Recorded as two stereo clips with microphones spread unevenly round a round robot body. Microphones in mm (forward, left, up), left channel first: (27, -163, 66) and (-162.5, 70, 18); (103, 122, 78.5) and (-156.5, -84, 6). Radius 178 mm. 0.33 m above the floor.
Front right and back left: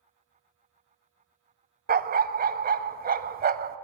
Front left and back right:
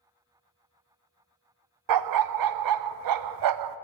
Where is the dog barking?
170° right, 0.5 m.